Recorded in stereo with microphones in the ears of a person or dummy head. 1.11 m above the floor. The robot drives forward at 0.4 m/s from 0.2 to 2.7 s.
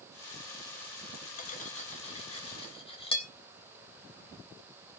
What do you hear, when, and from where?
1.4 s cutlery clinking: 50° left (ahead or behind), 0.9 m; by 3.3 s 30° left (ahead or behind), 1.3 m